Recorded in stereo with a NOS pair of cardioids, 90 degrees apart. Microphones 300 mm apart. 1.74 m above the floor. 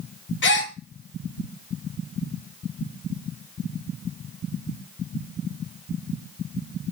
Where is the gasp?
40° left, 0.7 m.